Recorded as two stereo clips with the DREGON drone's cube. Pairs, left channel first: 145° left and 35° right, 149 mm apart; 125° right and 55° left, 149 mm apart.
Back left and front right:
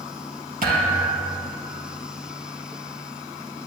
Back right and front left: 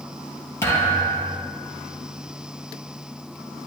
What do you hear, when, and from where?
0.6 s a thud: 50° right, 3.5 m